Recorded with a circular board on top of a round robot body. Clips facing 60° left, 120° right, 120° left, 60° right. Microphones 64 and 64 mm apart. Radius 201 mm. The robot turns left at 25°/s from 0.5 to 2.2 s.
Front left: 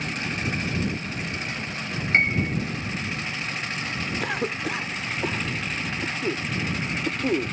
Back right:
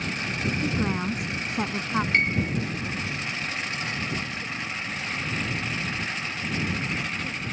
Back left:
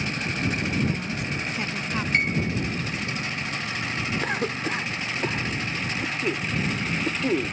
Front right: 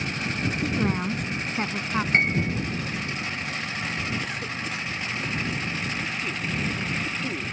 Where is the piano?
5° right.